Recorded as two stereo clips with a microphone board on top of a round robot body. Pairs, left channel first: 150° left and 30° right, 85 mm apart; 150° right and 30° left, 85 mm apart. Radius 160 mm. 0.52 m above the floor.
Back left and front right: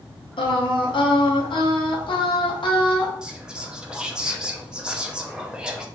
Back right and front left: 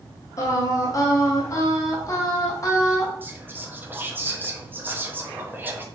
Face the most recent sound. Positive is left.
turn(degrees=35)